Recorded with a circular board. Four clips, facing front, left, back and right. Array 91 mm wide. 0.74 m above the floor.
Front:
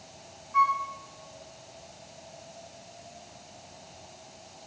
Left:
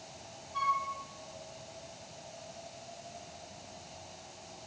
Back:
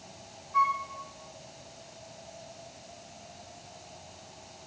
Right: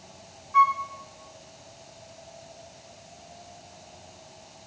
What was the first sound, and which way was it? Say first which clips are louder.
A flute: right 11 dB, front 2 dB; 75° right.